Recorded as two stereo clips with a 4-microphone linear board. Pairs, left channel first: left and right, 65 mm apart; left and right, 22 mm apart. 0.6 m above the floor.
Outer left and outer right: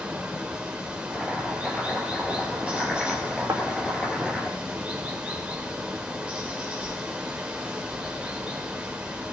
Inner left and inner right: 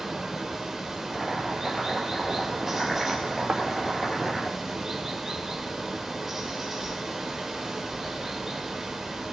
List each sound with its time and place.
0.0 s running water: 20° right (ahead or behind), 2.5 m
1.1 s chopping: centre (ahead or behind), 4 m
3.5 s a thud: 70° right (ahead or behind), 4 m